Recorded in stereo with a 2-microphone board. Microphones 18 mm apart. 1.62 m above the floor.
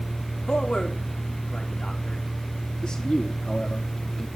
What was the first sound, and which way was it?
A man speaking, 65° left (ahead or behind).